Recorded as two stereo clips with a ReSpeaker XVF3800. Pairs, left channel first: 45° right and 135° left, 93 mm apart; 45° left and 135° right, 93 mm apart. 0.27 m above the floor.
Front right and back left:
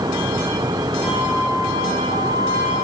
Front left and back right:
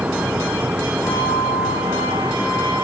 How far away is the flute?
About 8 m.